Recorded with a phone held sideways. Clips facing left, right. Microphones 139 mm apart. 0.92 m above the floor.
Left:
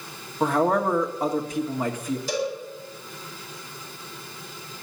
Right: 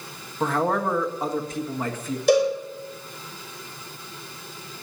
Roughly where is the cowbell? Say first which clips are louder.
Right 11 dB; right.